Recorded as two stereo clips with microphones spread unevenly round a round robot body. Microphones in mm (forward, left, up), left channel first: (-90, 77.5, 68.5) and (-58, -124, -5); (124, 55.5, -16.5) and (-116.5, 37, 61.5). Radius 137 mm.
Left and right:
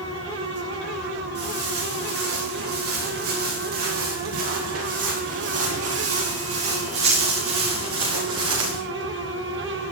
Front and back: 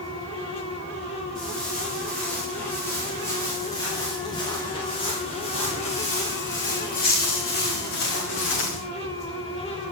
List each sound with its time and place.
1.4 s footsteps: 85° right, 10 m; by 8.8 s 45° right, 6 m